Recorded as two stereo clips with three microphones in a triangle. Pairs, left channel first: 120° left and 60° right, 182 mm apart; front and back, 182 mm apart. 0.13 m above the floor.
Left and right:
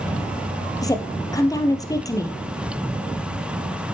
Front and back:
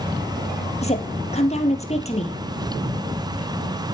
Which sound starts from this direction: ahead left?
A woman speaking, at 0.8 s.